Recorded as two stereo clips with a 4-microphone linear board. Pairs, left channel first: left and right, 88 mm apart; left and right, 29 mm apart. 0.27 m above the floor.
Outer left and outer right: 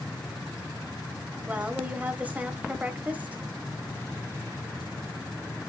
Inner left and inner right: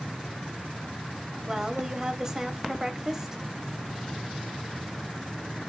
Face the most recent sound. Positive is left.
turn(degrees=-20)  # may be behind; listen again after turning